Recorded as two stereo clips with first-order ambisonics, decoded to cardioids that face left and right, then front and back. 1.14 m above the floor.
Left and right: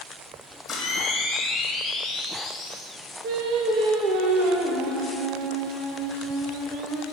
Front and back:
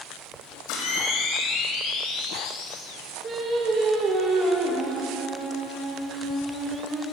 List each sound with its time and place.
0.7 s a camera shutter: 15° left, 2.5 m
3.2 s singing: 120° right, 1.3 m